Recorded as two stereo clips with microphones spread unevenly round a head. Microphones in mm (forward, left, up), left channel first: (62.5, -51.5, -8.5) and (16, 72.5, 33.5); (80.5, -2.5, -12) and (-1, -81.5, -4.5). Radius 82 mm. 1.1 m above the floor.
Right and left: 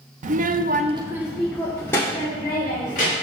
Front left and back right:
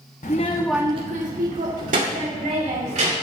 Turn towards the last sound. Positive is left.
turn(degrees=-140)